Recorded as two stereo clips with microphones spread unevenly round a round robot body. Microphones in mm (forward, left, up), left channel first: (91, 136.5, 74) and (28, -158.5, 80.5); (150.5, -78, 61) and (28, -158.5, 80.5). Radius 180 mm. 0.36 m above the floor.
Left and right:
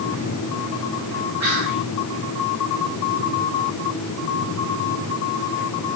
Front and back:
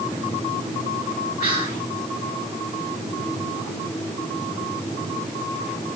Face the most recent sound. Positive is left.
turn(degrees=-165)